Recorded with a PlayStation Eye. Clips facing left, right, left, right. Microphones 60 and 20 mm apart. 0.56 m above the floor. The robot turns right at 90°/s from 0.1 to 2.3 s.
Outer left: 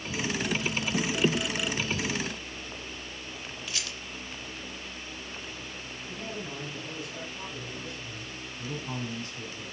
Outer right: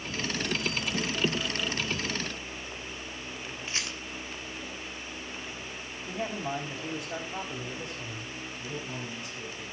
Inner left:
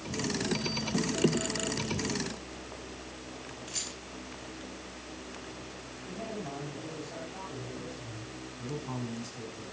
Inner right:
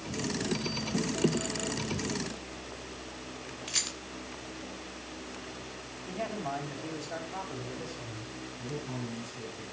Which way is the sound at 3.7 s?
35° right (ahead or behind).